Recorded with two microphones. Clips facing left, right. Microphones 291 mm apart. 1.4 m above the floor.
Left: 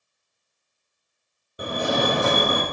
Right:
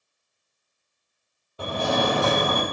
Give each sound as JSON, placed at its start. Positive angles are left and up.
{"t": 1.6, "sound": "a fire alarm", "side_deg": 20, "distance_m": 1.0}